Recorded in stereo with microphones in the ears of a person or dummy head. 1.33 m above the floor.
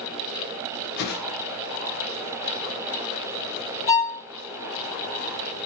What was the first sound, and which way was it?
A whoosh, 50° left (ahead or behind).